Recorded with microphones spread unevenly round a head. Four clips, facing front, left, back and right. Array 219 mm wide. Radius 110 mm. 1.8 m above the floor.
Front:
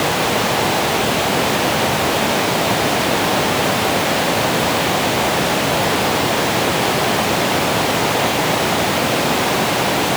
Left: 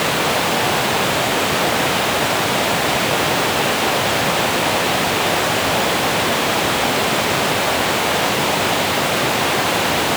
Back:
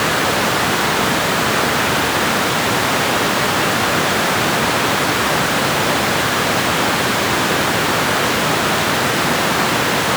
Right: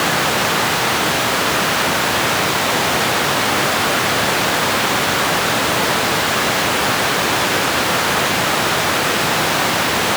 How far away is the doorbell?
I don't hear a doorbell.